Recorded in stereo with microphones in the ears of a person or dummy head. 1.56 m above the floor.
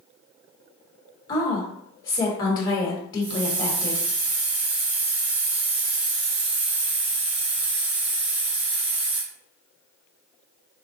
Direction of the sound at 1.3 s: 25° left (ahead or behind).